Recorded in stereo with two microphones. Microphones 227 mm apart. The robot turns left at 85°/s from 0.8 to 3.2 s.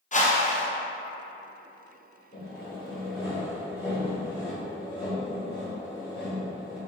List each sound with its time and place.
0.1 s a whoosh: 35° left (ahead or behind), 0.6 m
2.3 s sawing: 65° left, 2.0 m; by 6.8 s 10° right, 2.0 m